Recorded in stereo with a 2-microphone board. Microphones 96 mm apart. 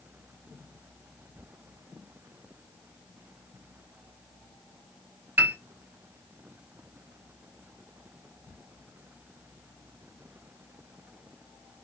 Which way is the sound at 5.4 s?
20° right (ahead or behind).